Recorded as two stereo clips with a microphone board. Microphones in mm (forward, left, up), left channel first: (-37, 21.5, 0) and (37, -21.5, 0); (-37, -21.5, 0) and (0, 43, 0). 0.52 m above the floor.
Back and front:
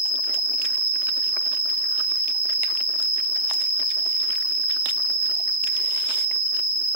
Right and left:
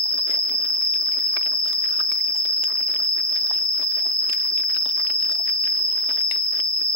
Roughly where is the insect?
Behind left.